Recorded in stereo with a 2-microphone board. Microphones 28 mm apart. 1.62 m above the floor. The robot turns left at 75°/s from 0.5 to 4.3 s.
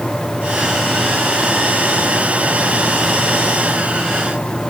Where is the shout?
I don't hear a shout.